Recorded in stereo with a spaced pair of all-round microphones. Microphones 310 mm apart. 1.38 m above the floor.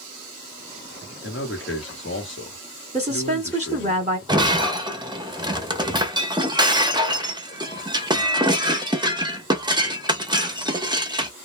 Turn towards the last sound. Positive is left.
turn(degrees=-15)  # may be behind; listen again after turning